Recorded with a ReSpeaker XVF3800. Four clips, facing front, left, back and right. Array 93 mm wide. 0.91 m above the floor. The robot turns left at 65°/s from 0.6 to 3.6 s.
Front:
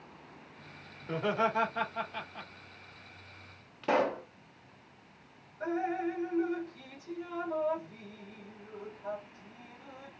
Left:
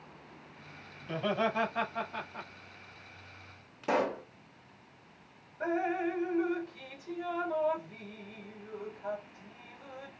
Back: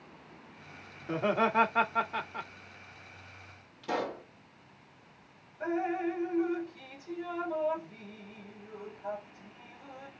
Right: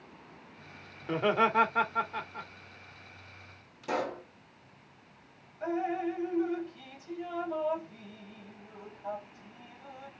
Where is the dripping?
90° left, 3 m.